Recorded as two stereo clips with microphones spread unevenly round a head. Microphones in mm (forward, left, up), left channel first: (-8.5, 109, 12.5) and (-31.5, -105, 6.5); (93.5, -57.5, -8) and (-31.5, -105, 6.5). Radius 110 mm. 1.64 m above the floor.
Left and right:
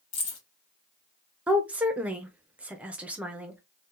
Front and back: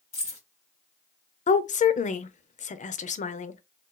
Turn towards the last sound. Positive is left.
turn(degrees=-10)